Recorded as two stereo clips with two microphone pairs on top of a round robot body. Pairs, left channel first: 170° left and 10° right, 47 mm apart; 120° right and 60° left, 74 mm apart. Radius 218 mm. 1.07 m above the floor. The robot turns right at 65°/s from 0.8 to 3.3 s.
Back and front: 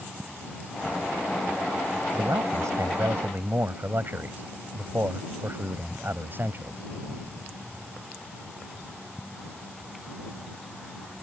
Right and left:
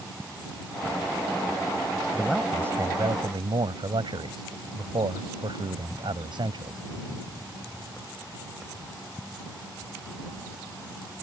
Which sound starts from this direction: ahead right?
A man speaking, at 2.1 s.